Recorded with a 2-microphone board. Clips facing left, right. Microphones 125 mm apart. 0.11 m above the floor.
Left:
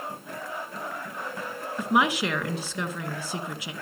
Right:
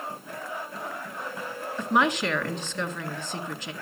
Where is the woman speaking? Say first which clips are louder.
Even; 10° left (ahead or behind), 1.6 m.